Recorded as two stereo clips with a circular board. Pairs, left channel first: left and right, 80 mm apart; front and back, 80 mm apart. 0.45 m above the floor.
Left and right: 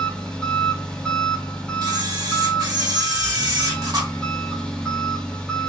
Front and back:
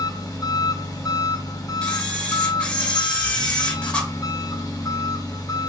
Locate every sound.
0.0 s an engine running: 20° left, 1.0 m
1.8 s a camera shutter: 70° right, 1.3 m